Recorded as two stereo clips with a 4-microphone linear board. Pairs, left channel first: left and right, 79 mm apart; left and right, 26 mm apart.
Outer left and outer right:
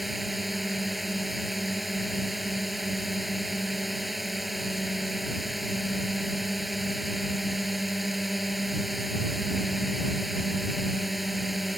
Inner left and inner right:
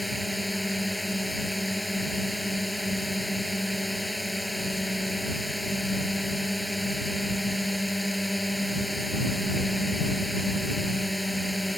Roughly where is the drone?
Centre.